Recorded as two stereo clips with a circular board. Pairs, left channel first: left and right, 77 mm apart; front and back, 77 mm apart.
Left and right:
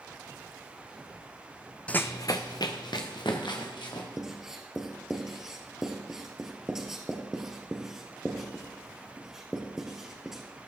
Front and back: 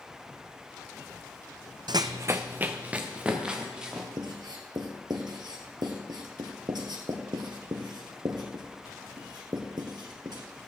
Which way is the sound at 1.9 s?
165° left.